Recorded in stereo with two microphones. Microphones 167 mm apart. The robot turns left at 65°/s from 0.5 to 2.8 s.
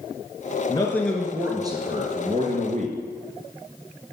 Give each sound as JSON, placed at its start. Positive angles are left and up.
{"t": 0.7, "sound": "a man speaking", "azimuth_deg": 30, "distance_m": 2.0}